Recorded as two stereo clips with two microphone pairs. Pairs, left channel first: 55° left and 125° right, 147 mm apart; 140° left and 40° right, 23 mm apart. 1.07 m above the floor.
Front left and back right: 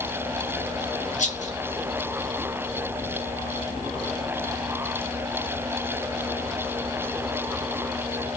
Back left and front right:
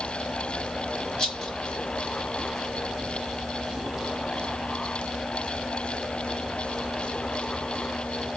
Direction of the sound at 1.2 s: 85° left.